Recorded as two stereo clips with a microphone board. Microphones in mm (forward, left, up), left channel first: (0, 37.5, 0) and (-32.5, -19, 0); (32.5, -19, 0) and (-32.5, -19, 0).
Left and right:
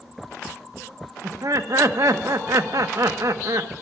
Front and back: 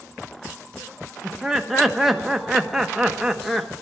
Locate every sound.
1.2 s laughter: 95° right, 1.2 m